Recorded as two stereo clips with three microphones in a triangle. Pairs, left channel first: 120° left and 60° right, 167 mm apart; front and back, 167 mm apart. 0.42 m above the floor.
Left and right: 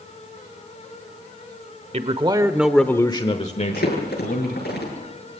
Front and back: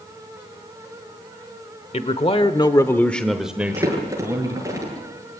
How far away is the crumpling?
About 8 m.